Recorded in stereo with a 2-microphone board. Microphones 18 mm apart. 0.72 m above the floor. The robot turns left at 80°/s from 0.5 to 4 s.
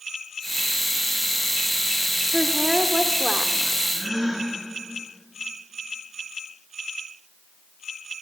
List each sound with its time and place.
2.3 s a woman speaking: 80° right, 1.9 m; by 3.7 s 170° left, 1.9 m
3.9 s a gasp: 15° right (ahead or behind), 9 m; by 4.5 s 10° right (ahead or behind), 9 m